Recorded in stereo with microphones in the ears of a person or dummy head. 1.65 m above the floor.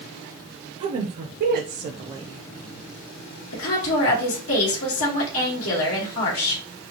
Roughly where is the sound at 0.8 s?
Right.